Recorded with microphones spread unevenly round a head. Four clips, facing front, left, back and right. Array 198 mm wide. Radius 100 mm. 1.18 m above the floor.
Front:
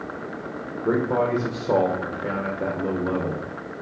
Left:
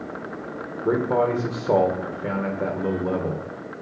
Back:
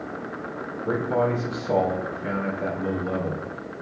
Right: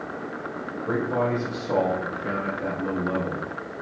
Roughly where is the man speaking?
Ahead left.